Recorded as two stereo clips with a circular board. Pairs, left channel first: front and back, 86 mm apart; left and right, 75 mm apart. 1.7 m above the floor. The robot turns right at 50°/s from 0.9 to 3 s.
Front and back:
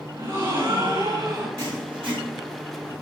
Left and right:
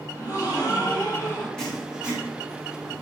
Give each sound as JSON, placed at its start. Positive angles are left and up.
{"t": 0.1, "sound": "a gasp", "azimuth_deg": 125, "distance_m": 5.0}
{"t": 1.6, "sound": "writing", "azimuth_deg": 170, "distance_m": 3.5}